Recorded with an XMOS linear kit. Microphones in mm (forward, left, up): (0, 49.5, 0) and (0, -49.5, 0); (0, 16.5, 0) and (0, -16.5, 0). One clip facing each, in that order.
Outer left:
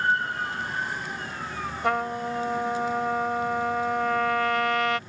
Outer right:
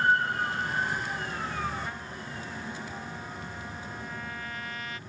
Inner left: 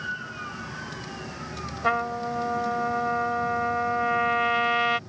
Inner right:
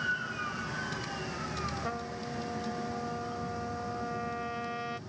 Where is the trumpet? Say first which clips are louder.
Outer left 13 dB, inner left 11 dB; 80° left.